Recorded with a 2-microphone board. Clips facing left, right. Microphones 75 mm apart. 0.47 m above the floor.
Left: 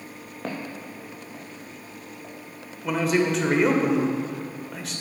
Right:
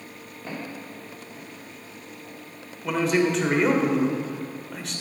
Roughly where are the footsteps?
Left.